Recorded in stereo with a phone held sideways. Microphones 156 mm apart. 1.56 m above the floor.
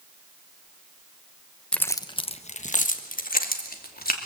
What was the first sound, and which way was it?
Keys jangling, 5° left (ahead or behind).